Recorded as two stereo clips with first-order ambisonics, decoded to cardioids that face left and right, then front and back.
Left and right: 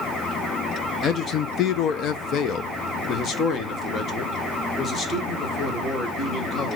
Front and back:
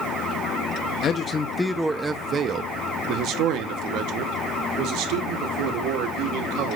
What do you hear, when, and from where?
1.0 s a man speaking: 40° left, 0.7 m; by 6.8 s 160° left, 3 m